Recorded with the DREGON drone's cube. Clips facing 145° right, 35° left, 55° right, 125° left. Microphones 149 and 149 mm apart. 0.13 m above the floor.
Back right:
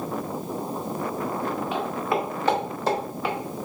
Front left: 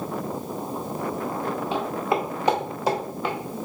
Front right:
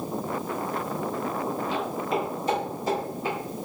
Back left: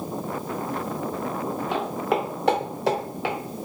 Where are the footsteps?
95° left, 1.8 m; by 3.4 s 125° left, 1.6 m.